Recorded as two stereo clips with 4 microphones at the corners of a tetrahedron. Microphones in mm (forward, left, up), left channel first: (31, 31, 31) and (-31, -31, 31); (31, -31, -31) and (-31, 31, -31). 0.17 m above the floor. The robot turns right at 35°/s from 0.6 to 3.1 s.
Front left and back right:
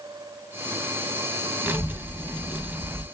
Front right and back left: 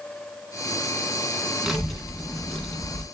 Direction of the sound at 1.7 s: 145° right.